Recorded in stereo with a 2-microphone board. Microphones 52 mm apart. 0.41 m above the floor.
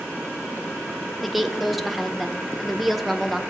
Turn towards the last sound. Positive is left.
turn(degrees=-5)  # may be behind; listen again after turning